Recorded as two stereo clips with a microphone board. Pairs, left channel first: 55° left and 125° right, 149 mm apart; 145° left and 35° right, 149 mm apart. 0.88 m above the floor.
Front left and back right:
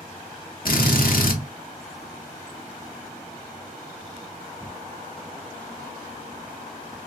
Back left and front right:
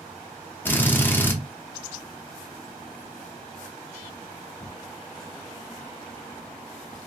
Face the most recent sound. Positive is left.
turn(degrees=70)